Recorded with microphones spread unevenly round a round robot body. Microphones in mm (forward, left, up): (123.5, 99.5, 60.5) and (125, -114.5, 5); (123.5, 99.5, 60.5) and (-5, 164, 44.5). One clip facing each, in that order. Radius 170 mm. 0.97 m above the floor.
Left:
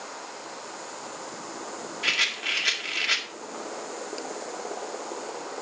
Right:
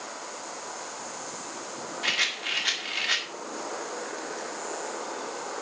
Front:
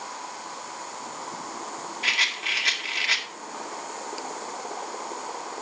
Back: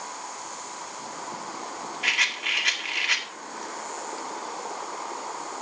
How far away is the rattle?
About 2.0 m.